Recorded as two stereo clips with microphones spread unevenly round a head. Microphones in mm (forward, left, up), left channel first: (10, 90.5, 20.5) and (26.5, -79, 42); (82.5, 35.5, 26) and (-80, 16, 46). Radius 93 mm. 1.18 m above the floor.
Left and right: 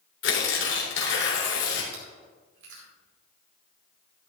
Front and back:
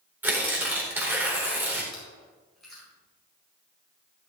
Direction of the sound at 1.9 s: 85° right.